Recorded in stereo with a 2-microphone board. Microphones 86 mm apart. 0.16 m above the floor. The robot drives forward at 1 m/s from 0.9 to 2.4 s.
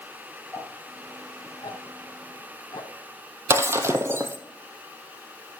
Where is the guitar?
I don't hear a guitar.